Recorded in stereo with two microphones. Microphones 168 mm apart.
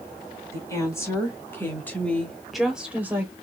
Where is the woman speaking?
15° left (ahead or behind), 2.0 m; by 3.3 s 15° right (ahead or behind), 1.0 m.